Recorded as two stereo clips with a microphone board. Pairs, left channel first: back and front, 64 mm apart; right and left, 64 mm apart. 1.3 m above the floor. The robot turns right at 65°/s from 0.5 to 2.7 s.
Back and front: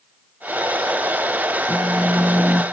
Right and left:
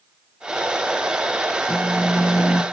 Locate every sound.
1.7 s a phone buzzing: 120° right, 1.1 m; by 2.6 s 60° right, 1.1 m